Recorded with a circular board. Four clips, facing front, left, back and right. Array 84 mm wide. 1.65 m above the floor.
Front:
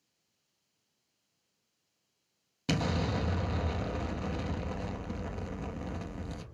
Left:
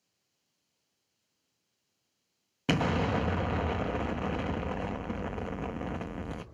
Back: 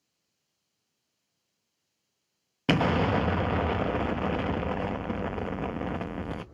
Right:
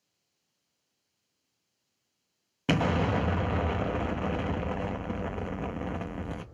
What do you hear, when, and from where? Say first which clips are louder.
2.7 s an explosion: right 2 dB, back 8 dB; 175° right, 1.1 m